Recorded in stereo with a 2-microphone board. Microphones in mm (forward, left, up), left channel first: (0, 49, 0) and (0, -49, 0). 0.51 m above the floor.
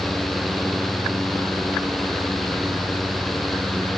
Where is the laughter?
I don't hear laughter.